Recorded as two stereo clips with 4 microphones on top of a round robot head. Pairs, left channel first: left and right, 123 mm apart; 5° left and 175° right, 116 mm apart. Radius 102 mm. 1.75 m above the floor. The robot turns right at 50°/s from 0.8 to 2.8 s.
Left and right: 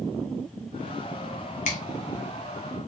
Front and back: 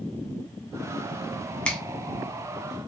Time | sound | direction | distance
1.6 | a finger snap | 80° left | 0.6 m